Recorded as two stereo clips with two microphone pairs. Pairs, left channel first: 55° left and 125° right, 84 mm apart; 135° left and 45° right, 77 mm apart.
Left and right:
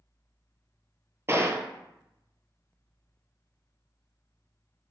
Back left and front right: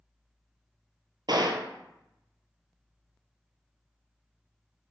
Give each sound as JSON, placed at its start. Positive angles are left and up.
{"t": 1.3, "sound": "a gunshot", "azimuth_deg": -70, "distance_m": 0.7}